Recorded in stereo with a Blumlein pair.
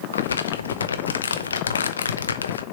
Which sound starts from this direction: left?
Crumpling, at 0.1 s.